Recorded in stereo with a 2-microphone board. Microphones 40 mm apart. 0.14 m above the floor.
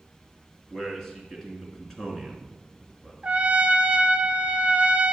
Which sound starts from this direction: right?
A trumpet, at 3.2 s.